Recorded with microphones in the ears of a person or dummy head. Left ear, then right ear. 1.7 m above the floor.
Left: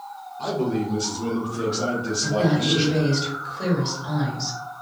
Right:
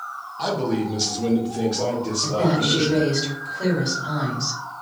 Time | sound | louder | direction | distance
0.4 | a man speaking | right 1 dB | 55° right (ahead or behind) | 0.9 m
2.2 | a woman speaking | right 1 dB | 30° left (ahead or behind) | 1.5 m